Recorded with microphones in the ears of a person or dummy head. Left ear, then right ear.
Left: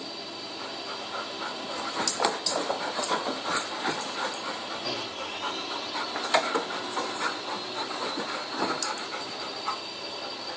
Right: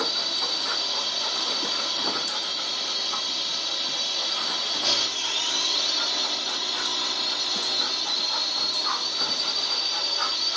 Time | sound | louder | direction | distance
0.0 | a drone | right 12 dB | 60° right (ahead or behind) | ?